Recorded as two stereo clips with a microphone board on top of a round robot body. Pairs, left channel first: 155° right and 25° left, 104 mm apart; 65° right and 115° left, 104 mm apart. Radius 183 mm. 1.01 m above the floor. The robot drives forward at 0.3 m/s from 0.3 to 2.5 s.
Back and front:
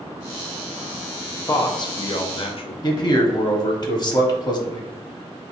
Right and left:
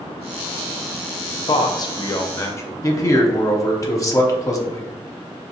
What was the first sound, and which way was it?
A man speaking, 105° right.